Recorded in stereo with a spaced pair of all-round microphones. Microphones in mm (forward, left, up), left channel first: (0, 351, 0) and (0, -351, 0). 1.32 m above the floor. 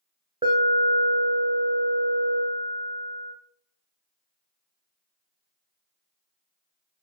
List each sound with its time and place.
0.4 s an alarm: 10° right (ahead or behind), 0.8 m